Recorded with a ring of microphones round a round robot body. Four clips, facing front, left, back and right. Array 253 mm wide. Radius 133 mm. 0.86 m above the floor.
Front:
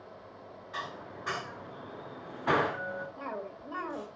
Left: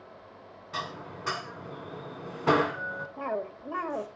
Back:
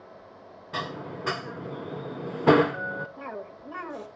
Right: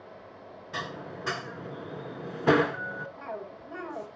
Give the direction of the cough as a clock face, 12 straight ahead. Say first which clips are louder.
Left 6 dB, back 1 dB; 9 o'clock.